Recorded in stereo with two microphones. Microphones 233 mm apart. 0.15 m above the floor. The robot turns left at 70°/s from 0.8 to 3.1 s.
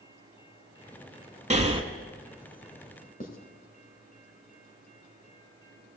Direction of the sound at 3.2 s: 35° left (ahead or behind).